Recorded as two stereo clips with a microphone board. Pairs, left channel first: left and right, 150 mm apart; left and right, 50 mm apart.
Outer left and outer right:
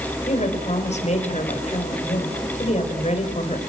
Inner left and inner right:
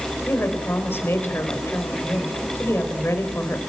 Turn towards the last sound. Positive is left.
turn(degrees=45)  # may be behind; listen again after turning